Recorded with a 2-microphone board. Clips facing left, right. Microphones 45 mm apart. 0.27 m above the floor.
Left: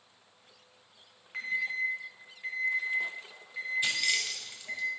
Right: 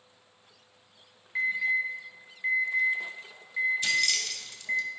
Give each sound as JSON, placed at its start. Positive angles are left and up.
{"t": 1.3, "sound": "an alarm", "side_deg": 65, "distance_m": 3.0}
{"t": 3.8, "sound": "keys jangling", "side_deg": 15, "distance_m": 0.8}